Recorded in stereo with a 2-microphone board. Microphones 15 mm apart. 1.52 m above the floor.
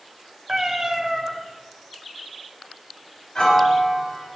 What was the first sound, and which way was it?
A cat meowing, 40° right (ahead or behind).